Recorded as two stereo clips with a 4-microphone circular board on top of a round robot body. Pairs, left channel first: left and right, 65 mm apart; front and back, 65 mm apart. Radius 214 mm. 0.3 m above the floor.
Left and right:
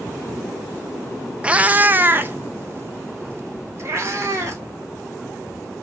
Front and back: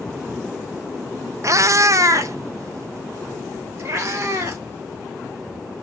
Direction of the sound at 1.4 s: 160° right.